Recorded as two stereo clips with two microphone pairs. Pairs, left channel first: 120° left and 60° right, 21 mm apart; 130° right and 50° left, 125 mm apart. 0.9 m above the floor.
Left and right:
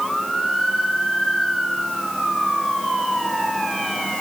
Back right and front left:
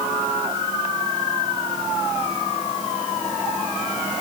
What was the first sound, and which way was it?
Only background noise.